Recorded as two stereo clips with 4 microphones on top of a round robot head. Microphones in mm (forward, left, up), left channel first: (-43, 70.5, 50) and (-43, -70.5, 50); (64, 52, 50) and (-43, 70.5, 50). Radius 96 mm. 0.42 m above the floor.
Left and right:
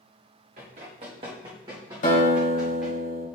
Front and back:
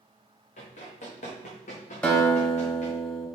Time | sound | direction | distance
0.6 | running footsteps | 45° right | 2.5 m
2.0 | a guitar | 65° left | 3 m